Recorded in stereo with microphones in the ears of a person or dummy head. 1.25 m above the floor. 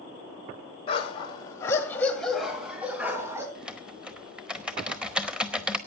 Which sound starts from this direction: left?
A dog barking, at 0.9 s.